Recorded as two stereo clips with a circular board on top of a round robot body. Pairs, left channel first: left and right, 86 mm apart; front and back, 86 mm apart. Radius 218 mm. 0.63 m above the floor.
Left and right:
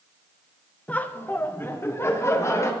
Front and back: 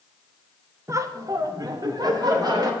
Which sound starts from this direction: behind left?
Laughter, at 0.9 s.